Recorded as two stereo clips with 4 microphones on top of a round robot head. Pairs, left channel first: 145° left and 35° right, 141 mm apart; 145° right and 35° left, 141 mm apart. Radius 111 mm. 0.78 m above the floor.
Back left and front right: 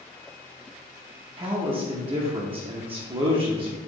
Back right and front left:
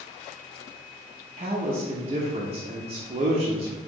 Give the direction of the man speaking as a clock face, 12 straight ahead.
12 o'clock.